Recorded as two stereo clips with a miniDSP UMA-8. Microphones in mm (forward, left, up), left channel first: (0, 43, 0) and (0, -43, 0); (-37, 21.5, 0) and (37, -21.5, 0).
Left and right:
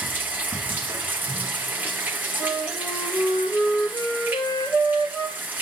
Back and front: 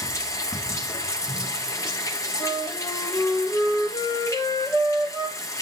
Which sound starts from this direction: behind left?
A flute, at 2.4 s.